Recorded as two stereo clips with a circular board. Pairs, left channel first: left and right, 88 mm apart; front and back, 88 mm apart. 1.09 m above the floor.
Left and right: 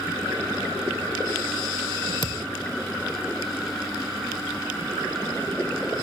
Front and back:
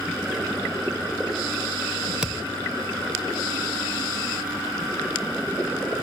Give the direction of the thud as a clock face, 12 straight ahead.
9 o'clock.